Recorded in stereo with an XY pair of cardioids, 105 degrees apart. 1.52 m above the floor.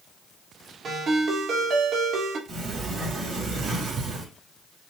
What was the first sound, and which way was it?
A ringtone, 50° right.